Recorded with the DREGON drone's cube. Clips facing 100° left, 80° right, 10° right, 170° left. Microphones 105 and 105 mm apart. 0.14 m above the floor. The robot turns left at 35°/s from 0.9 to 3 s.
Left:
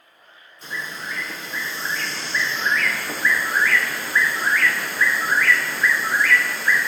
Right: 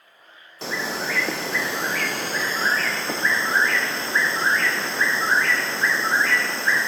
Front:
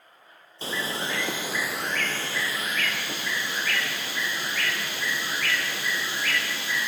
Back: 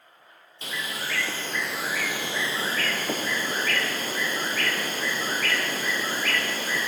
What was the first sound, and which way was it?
A bird, 70° right.